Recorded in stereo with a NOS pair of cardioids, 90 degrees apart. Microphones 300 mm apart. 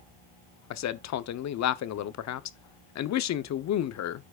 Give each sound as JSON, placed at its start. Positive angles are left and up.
{"t": 0.7, "sound": "a man speaking", "azimuth_deg": 60, "distance_m": 0.9}